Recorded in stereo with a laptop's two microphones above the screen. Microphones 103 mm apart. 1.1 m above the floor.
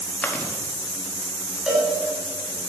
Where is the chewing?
15° left (ahead or behind), 1.3 m.